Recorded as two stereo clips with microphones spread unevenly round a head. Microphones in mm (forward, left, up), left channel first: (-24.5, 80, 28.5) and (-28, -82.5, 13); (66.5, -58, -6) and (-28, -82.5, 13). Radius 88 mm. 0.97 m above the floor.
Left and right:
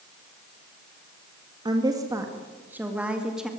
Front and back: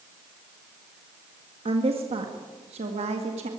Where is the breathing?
I don't hear breathing.